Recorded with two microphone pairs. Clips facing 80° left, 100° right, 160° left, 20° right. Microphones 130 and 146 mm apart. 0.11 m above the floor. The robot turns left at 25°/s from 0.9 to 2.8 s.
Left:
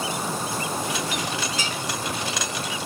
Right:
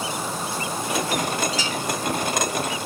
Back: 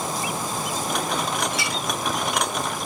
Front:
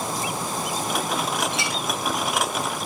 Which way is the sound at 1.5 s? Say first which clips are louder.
Right 3 dB, even; 45° left.